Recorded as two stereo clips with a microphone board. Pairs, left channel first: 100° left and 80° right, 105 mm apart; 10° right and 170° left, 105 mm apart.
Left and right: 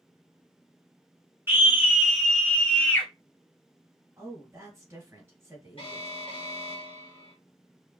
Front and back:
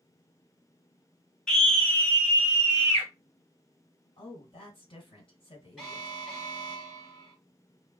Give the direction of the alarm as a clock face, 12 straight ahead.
9 o'clock.